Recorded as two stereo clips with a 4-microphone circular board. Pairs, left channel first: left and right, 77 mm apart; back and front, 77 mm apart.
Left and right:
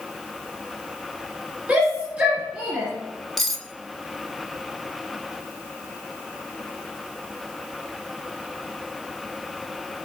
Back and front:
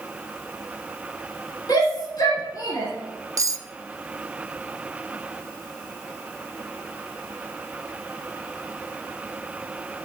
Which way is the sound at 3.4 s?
5° left.